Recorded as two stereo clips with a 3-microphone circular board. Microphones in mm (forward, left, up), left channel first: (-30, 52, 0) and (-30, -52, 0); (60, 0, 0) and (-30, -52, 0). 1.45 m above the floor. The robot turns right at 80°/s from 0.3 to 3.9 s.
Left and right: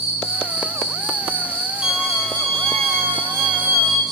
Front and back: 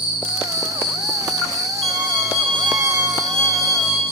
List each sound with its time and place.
0.0 s an insect: 70° left, 9.5 m; by 4.1 s straight ahead, 9.5 m
1.8 s a violin: 175° right, 4.5 m; by 4.0 s 10° right, 4.5 m